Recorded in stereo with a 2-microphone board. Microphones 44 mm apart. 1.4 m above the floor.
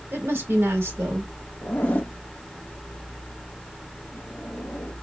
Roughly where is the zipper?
Left.